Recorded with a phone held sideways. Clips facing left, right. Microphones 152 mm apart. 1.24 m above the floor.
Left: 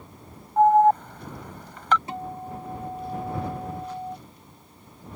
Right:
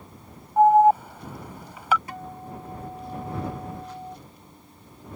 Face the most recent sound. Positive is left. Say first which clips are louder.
# left 4 dB
turn(degrees=30)  # may be behind; listen again after turning